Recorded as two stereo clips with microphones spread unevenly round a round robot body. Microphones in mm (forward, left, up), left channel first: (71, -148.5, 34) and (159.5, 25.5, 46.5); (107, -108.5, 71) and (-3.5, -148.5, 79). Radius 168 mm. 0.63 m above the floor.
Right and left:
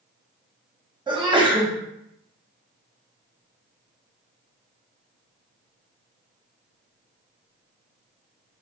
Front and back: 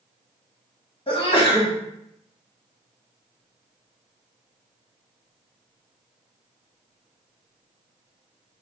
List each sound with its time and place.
1.1 s a sneeze: 5° right, 1.3 m